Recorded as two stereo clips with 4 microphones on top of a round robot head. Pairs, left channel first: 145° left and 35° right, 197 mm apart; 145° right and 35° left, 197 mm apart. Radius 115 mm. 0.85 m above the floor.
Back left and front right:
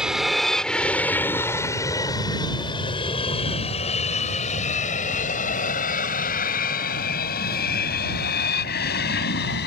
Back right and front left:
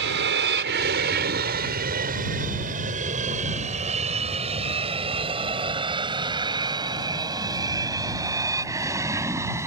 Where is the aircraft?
55° left; by 9.7 s 110° left.